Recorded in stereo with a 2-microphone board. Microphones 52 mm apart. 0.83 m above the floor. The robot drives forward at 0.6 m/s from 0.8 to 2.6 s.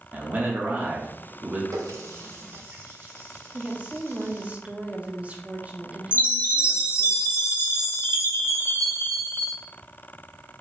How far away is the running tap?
About 0.8 m.